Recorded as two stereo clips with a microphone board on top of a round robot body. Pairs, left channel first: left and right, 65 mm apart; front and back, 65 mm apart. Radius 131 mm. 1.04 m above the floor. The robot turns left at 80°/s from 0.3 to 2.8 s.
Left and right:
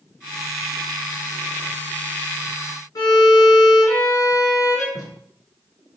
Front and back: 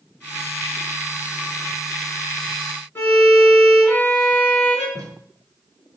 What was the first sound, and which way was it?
A violin, 65° left.